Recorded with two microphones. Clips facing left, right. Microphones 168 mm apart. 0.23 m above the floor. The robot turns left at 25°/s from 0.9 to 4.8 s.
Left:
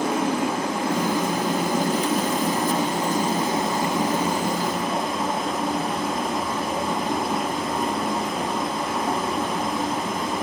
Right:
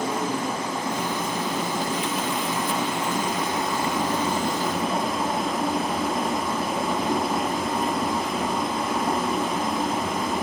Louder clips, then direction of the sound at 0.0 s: Left 4 dB; 95° left.